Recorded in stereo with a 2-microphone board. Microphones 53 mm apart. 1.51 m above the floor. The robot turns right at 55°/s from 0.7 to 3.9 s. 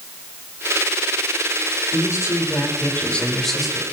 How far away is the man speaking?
About 4 m.